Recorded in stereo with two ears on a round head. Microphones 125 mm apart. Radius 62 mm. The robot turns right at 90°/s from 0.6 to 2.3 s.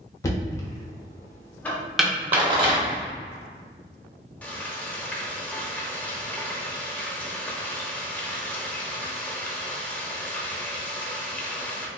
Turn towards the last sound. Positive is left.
turn(degrees=10)  # may be behind; listen again after turning